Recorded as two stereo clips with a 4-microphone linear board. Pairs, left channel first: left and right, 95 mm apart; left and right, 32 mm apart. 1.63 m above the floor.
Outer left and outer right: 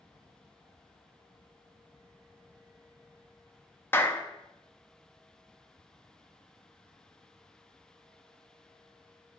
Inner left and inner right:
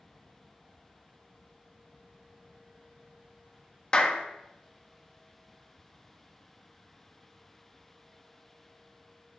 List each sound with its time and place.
3.9 s a clap: 25° left (ahead or behind), 0.8 m